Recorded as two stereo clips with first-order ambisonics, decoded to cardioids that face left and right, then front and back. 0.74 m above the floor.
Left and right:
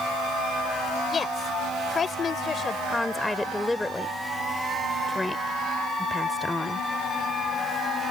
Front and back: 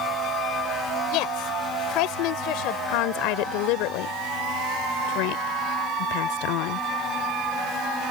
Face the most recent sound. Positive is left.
turn(degrees=5)